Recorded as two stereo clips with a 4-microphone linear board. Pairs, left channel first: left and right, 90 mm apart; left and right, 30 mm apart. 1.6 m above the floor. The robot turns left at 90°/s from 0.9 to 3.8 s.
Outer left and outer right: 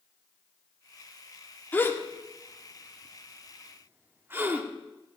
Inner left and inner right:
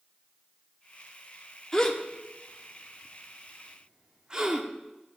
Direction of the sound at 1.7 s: 20° left (ahead or behind).